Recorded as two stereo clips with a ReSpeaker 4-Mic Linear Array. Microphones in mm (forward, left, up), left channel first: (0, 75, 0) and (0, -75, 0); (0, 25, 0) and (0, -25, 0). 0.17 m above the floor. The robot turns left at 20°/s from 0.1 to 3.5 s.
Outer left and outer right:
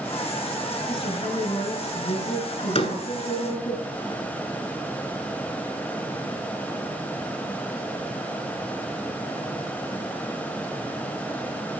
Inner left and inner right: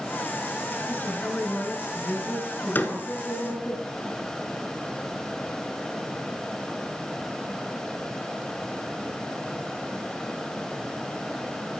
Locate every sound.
0.9 s a woman speaking: 140° left, 2.5 m; by 3.8 s 85° left, 2.5 m
2.8 s a door slam: 40° left (ahead or behind), 1.2 m